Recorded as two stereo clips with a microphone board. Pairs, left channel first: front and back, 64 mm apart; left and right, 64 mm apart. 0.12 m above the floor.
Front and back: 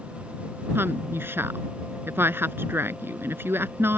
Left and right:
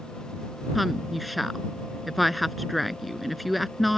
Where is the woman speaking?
Straight behind.